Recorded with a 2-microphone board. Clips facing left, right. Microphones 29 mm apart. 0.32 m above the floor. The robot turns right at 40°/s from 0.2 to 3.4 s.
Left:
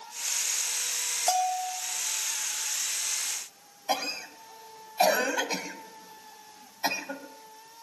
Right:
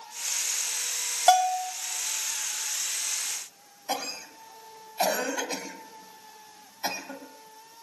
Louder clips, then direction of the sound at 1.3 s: Right 6 dB; 45° right (ahead or behind).